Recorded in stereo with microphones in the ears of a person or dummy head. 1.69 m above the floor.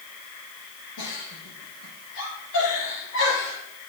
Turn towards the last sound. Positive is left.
turn(degrees=75)  # may be behind; listen again after turning